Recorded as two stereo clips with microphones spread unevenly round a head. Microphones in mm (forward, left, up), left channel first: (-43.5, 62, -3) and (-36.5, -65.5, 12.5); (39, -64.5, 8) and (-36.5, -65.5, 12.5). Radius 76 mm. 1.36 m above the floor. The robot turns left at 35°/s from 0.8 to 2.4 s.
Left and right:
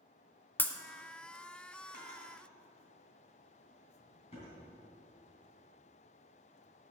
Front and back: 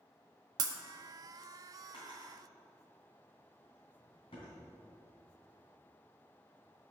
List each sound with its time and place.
0.6 s breaking glass: 175° left, 0.9 m
1.9 s a drawer: 55° left, 3 m; by 4.5 s 35° left, 3 m